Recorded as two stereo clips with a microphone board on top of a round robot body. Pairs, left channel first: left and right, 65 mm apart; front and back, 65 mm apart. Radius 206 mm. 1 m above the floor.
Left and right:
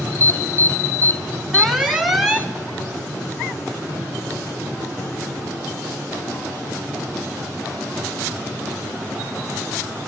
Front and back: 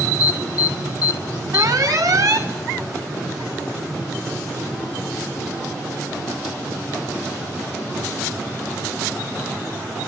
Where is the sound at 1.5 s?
175° right, 2.5 m.